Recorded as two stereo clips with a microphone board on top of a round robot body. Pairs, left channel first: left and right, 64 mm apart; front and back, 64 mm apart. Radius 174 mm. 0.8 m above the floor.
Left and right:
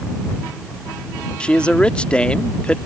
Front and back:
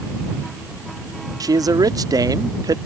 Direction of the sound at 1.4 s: 165° left.